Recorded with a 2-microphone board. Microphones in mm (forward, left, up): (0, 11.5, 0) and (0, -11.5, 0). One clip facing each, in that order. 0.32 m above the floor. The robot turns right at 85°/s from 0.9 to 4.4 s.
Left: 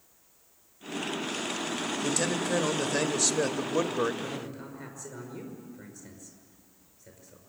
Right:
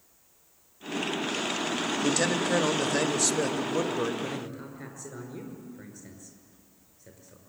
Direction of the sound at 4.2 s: 35° right (ahead or behind).